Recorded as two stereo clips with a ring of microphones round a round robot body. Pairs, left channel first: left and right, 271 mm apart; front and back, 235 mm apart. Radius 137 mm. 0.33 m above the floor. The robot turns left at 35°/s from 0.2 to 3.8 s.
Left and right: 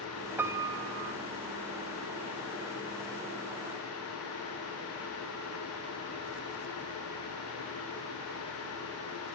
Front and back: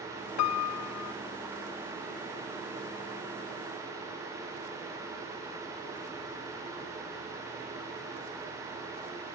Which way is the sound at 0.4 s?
5° right.